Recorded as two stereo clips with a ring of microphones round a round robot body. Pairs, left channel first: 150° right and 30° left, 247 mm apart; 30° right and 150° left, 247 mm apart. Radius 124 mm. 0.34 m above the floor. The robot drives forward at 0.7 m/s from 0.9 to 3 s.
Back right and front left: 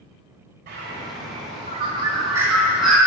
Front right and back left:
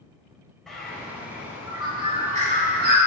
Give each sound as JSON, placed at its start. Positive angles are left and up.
{"t": 0.7, "sound": "a bird", "azimuth_deg": 60, "distance_m": 1.9}